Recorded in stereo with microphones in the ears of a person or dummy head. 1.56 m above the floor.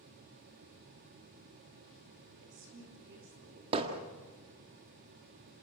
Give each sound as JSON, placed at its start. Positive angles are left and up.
{"t": 2.4, "sound": "a woman speaking", "side_deg": -65, "distance_m": 3.5}
{"t": 3.7, "sound": "hammering", "side_deg": -35, "distance_m": 1.7}